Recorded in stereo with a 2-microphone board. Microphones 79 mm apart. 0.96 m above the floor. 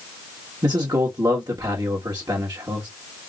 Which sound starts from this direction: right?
A man speaking, at 0.6 s.